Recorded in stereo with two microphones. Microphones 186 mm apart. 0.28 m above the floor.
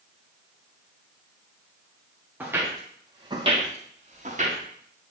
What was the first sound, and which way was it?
Footsteps, 10° right (ahead or behind).